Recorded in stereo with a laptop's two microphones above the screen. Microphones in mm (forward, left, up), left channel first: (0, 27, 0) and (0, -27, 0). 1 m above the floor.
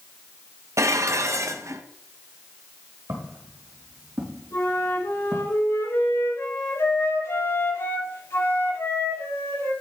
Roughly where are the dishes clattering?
Right.